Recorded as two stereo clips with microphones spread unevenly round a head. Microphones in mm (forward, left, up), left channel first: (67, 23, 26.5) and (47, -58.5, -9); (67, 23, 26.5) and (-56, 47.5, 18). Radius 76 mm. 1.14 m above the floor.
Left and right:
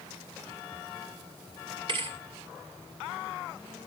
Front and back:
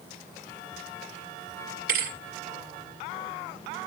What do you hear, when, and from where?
1.9 s a thud: 170° right, 2 m